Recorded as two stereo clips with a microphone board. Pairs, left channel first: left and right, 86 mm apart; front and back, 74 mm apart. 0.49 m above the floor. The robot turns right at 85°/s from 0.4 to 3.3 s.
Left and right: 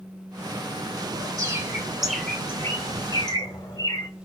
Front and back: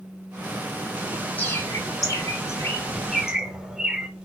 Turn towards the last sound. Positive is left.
turn(degrees=100)